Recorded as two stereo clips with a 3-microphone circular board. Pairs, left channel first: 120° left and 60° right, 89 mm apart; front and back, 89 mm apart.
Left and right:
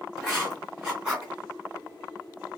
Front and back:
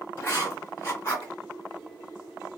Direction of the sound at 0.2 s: 10° left.